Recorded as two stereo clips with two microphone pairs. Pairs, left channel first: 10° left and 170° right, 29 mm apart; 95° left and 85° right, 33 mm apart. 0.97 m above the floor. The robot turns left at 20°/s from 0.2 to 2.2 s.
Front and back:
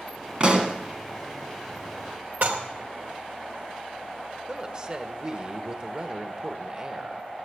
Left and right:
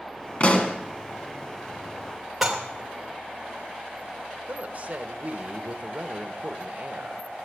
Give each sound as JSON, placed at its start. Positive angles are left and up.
{"t": 0.4, "sound": "a pop", "azimuth_deg": 140, "distance_m": 1.8}
{"t": 2.4, "sound": "dishes clattering", "azimuth_deg": -175, "distance_m": 2.0}
{"t": 4.5, "sound": "a woman speaking", "azimuth_deg": -115, "distance_m": 1.1}